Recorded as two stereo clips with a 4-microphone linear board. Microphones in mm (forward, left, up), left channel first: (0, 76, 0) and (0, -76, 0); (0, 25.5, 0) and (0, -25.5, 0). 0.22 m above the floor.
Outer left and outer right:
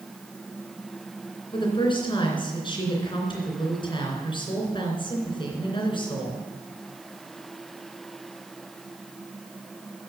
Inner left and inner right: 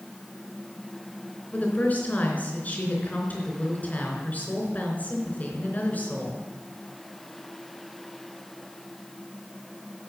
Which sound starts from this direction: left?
A woman speaking, at 1.5 s.